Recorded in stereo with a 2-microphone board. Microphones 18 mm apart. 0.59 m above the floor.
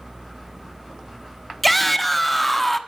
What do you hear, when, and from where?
1.6 s a shout: 10° left (ahead or behind), 0.9 m